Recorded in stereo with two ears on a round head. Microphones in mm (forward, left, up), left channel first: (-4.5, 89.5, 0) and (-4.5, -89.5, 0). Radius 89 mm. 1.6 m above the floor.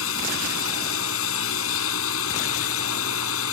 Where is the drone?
80° left.